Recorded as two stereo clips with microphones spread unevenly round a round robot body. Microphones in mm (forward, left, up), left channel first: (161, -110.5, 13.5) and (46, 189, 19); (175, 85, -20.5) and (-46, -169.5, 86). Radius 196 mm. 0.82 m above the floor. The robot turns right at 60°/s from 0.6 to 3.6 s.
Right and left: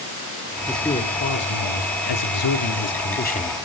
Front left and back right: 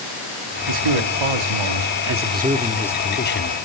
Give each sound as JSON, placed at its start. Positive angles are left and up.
{"t": 0.7, "sound": "a man speaking", "azimuth_deg": -165, "distance_m": 2.0}